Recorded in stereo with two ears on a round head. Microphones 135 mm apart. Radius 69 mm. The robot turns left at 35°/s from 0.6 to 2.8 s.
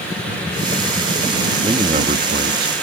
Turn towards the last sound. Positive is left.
turn(degrees=-70)